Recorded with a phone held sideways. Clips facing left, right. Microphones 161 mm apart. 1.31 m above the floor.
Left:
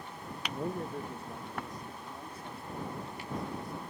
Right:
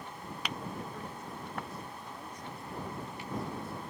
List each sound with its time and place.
0.5 s a man speaking: 65° left (ahead or behind); by 3.8 s 5° right (ahead or behind)